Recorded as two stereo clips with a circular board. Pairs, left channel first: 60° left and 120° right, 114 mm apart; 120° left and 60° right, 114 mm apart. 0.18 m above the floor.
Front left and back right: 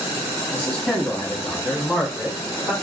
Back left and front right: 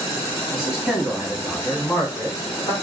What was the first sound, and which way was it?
A man speaking, 5° left.